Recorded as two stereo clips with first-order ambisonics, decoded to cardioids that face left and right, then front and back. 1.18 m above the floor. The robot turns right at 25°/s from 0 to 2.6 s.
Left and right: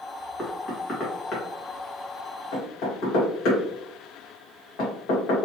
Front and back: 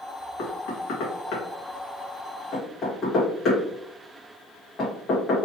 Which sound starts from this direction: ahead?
Knocking, at 0.4 s.